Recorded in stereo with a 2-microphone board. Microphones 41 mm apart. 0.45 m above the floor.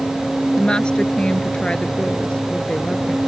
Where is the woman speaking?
20° left (ahead or behind).